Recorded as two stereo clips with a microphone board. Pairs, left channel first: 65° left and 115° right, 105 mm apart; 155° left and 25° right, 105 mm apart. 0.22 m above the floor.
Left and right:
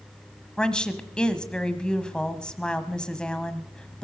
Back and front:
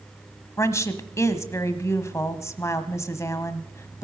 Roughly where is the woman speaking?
Behind left.